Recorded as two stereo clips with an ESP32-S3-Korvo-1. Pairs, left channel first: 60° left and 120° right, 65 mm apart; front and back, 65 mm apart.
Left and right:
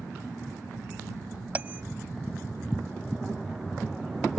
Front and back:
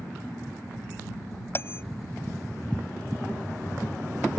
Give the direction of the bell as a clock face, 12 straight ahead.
2 o'clock.